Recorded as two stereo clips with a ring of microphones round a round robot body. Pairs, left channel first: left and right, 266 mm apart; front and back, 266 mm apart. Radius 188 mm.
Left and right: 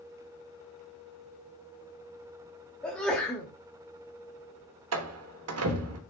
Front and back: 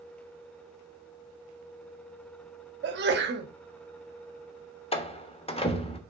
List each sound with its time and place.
2.8 s a sneeze: 175° left, 1.2 m
4.9 s a door slam: 70° right, 1.4 m